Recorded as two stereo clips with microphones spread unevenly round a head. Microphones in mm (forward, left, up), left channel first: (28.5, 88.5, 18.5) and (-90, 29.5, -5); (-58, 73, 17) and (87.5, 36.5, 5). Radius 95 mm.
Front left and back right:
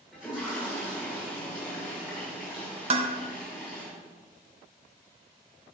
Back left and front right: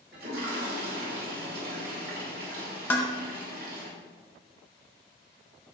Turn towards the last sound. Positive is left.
turn(degrees=-130)